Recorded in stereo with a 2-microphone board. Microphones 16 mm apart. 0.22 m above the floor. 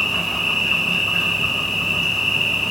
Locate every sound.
0.0 s an insect: 15° right (ahead or behind), 1.2 m